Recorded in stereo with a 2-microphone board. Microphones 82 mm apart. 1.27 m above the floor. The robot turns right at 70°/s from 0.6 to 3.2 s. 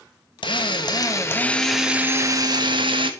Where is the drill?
100° left, 1.2 m; by 3.1 s 85° right, 1.2 m.